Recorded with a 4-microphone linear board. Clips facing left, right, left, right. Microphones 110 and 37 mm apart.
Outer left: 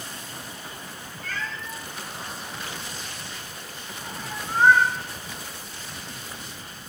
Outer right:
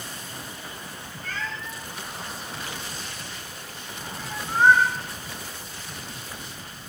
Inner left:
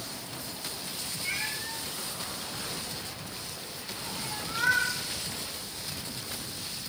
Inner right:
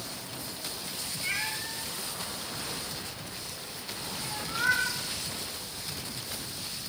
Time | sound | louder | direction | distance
1.2 | a cat meowing | even, inner right 1 dB | 30° right (ahead or behind) | 8 m